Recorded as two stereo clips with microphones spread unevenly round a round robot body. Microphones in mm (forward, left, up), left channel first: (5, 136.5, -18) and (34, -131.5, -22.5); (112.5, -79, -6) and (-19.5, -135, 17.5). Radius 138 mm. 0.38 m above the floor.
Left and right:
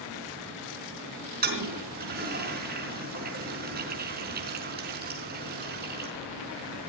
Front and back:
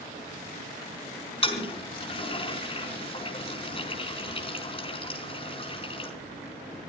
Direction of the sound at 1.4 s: 25° right.